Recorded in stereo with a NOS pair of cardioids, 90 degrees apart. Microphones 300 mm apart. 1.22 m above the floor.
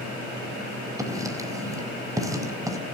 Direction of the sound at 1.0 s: 10° right.